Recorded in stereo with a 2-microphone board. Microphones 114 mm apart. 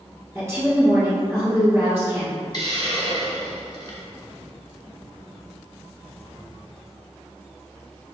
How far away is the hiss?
About 1.0 m.